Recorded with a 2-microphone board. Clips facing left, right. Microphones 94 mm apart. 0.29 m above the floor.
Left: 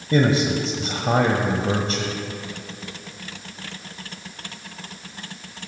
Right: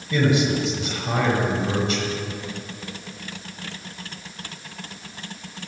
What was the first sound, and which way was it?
A man speaking, 40° left (ahead or behind).